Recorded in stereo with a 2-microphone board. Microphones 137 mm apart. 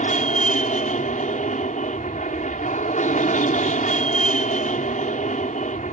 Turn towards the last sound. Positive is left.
turn(degrees=65)  # may be behind; listen again after turning